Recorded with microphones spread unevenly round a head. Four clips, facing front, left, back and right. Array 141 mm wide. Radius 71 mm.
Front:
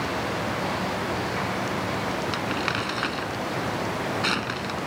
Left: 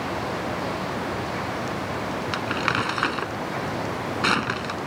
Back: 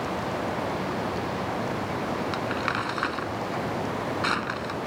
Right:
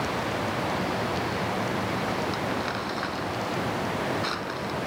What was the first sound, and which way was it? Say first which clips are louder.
Crumpling: left 4 dB, even; 80° left.